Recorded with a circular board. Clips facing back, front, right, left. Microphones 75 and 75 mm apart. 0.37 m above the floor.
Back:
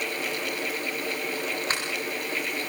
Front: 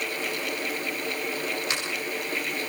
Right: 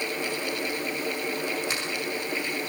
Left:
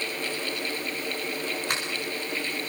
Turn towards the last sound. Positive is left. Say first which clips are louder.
# back 1 dB, left 1 dB
turn(degrees=125)